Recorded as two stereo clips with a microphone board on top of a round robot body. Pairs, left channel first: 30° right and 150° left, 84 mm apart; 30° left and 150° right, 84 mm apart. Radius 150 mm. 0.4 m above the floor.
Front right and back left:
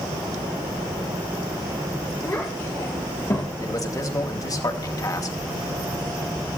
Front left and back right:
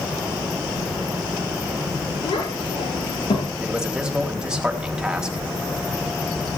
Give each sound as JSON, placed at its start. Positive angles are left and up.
{"t": 2.2, "sound": "a child speaking", "azimuth_deg": 30, "distance_m": 7.0}
{"t": 3.6, "sound": "a man speaking", "azimuth_deg": -70, "distance_m": 3.5}